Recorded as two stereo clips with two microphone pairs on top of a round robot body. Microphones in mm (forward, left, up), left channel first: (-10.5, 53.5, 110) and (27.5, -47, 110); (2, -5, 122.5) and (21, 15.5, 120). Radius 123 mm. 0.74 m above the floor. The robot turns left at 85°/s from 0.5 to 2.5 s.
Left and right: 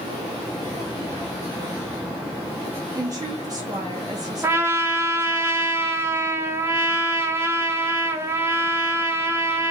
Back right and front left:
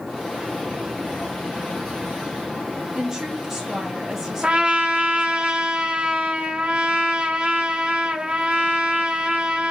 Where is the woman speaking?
20° right, 1.3 m.